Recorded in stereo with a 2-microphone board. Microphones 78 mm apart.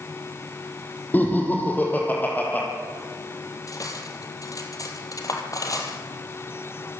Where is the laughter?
25° left (ahead or behind), 5.5 m.